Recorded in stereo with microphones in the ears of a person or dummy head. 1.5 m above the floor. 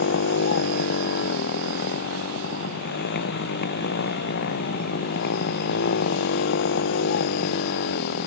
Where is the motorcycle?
60° left (ahead or behind).